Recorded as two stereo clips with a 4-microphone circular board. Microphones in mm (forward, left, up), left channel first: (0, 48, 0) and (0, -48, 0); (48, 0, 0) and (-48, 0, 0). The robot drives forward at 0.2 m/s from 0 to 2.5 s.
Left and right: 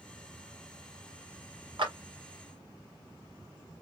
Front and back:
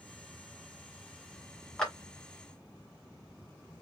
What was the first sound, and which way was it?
A clap, 80° right.